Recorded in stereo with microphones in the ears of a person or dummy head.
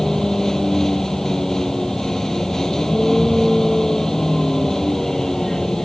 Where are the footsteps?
No footsteps in this recording.